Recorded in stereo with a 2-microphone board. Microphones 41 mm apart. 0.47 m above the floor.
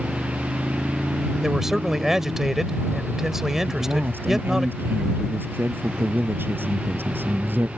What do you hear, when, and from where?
0.0 s a motorcycle: 65° right (ahead or behind); by 7.8 s 55° right (ahead or behind)
1.4 s a man speaking: 10° right (ahead or behind)
3.7 s a man speaking: 60° right (ahead or behind)